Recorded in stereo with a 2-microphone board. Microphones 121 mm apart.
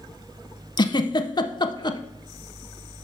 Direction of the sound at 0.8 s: 35° left (ahead or behind).